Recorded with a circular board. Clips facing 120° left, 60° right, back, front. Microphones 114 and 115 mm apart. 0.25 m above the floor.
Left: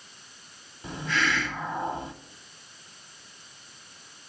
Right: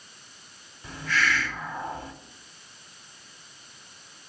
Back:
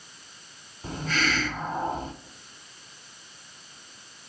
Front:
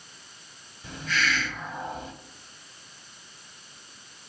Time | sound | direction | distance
0.8 | a hiss | 170° left | 0.7 m